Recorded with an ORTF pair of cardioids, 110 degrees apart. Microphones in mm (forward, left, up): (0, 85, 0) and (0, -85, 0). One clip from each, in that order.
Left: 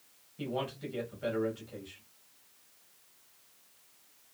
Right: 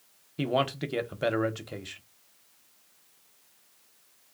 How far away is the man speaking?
About 0.7 m.